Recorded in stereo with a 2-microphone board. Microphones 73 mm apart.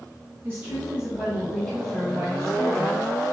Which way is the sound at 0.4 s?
35° right (ahead or behind).